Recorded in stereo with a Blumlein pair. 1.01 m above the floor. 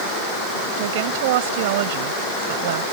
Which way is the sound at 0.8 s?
50° right.